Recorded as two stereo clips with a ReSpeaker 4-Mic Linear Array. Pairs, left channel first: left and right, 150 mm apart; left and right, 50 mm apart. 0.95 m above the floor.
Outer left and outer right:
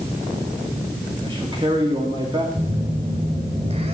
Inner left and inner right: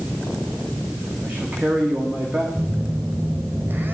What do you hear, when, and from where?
1.2 s a man speaking: 35° right (ahead or behind), 2.0 m
2.5 s a phone buzzing: 45° right (ahead or behind), 2 m